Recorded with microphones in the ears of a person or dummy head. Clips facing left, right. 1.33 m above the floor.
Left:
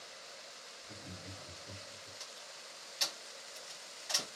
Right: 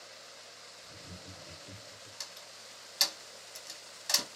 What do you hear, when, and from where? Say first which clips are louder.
0.8 s laughter: left 1 dB; 30° left (ahead or behind), 1.1 m; by 2.1 s 40° right (ahead or behind), 0.9 m
2.2 s a door slam: even; 60° right (ahead or behind), 0.9 m